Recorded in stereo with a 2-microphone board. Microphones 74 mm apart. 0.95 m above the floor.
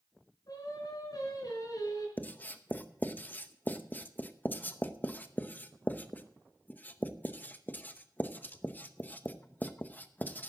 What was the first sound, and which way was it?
Singing, 60° left (ahead or behind).